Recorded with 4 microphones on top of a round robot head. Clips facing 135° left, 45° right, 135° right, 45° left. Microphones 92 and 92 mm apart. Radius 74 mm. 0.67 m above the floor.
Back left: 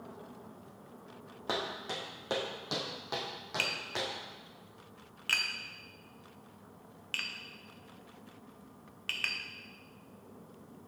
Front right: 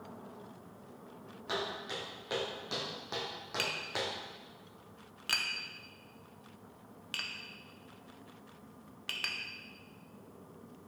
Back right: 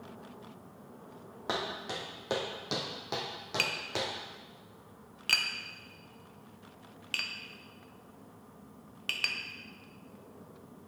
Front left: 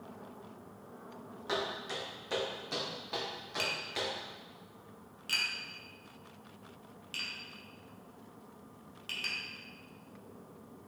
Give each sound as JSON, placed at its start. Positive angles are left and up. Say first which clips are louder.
{"t": 1.5, "sound": "footsteps", "louder": "back left 1 dB, back right 1 dB", "azimuth_deg": 180, "distance_m": 2.5}
{"t": 3.6, "sound": "tapping", "louder": "front right 1 dB, back right 1 dB", "azimuth_deg": -115, "distance_m": 0.7}